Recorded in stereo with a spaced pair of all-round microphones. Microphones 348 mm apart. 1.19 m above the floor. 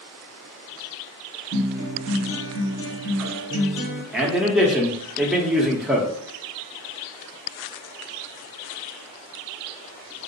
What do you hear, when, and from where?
1.5 s a guitar: 45° right (ahead or behind), 1.6 m
4.1 s a man speaking: centre (ahead or behind), 0.8 m